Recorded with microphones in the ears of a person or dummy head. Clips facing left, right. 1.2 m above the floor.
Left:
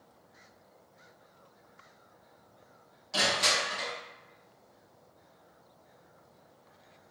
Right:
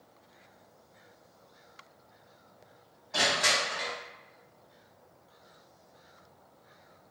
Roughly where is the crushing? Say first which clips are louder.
Right 1 dB; left.